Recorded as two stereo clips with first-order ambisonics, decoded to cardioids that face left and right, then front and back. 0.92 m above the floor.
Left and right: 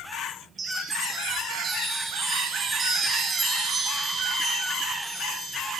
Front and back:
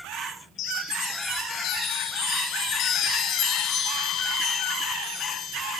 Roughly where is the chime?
Ahead right.